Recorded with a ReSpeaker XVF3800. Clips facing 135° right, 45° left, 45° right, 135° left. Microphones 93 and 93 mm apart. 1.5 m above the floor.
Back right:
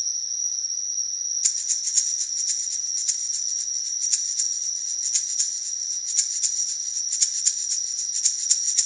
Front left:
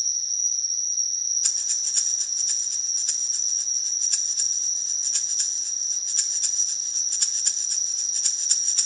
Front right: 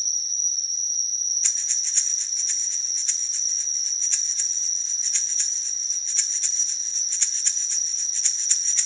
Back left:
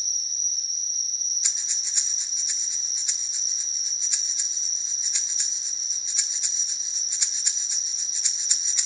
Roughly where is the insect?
Right.